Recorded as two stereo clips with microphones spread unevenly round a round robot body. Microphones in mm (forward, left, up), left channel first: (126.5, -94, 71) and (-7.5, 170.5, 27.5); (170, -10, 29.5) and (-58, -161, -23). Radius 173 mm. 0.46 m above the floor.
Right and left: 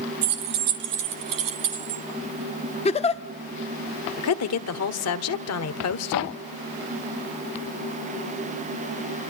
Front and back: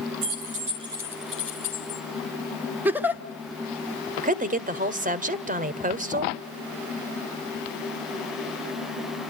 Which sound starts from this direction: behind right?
A giggle, at 2.9 s.